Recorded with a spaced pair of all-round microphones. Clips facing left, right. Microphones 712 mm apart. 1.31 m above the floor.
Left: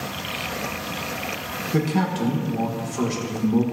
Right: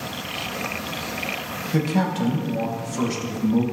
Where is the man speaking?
10° right (ahead or behind), 1.5 m.